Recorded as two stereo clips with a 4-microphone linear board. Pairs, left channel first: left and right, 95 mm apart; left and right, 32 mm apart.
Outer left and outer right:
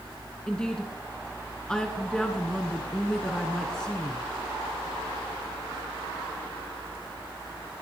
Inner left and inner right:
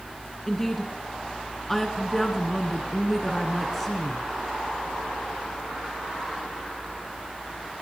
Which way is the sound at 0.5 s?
10° left (ahead or behind).